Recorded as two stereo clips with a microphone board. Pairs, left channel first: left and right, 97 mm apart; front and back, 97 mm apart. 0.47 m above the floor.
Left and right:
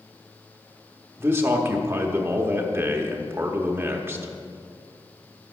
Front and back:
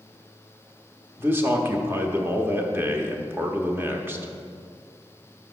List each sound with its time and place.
1.2 s a man speaking: 135° right, 1.0 m